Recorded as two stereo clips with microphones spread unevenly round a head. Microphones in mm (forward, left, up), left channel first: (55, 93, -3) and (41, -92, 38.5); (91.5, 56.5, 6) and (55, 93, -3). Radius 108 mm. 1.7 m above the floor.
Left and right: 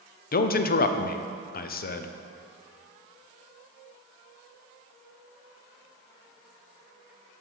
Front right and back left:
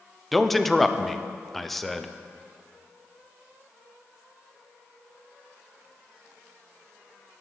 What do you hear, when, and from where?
0.3 s a man speaking: 40° left, 0.6 m